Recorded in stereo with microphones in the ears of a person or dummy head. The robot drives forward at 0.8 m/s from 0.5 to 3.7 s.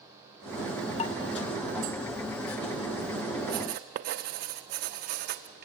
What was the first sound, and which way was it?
Dishes clattering, 40° left (ahead or behind).